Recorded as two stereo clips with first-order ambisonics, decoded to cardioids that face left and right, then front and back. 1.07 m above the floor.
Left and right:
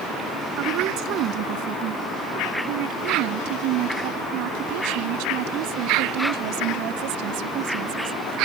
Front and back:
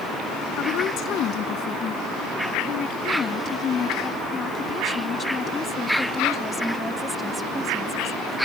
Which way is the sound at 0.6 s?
50° right.